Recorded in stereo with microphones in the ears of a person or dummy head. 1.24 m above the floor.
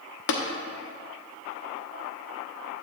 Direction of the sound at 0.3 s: 60° left (ahead or behind).